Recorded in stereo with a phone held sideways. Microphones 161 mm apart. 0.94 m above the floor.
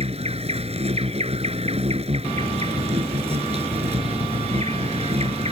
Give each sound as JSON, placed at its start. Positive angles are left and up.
{"t": 0.0, "sound": "an insect", "side_deg": -40}